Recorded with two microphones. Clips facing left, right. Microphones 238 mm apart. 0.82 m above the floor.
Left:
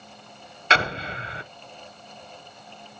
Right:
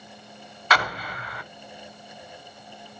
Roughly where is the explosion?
Left.